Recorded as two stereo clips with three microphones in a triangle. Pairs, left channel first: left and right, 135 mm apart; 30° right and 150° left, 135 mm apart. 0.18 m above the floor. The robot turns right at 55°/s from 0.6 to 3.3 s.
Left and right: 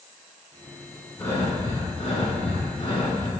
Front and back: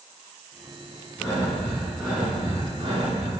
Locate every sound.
1.2 s breathing: 20° left, 2 m; by 3.3 s 135° left, 2 m